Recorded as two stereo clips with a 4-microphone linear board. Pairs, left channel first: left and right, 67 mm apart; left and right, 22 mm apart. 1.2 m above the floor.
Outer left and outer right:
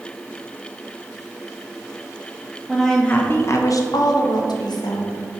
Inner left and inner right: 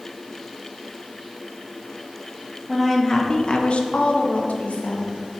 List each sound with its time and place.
2.7 s a woman speaking: centre (ahead or behind), 0.6 m; by 5.4 s 80° left, 1.3 m